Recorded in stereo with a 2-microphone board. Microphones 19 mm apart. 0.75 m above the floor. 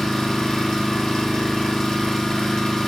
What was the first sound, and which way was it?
An engine running, 30° left (ahead or behind).